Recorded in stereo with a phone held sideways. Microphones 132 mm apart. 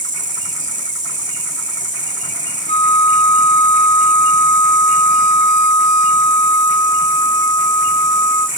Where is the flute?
50° left (ahead or behind), 0.7 m.